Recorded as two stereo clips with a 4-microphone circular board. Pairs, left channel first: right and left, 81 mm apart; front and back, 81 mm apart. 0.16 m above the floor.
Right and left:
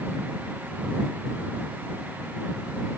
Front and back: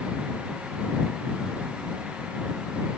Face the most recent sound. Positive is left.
No sound to turn to.